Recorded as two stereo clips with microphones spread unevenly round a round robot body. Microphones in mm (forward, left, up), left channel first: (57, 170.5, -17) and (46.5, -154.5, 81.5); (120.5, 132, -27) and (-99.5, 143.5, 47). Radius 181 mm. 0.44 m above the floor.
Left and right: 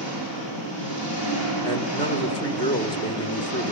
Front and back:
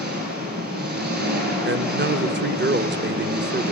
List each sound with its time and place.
0.0 s an engine running: 135° left, 5 m
1.6 s a man speaking: 135° left, 1.0 m